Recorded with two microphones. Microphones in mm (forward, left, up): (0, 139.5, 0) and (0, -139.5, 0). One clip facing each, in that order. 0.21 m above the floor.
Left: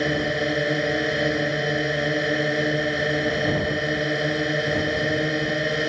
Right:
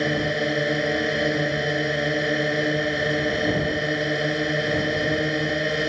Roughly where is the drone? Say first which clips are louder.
Even; centre.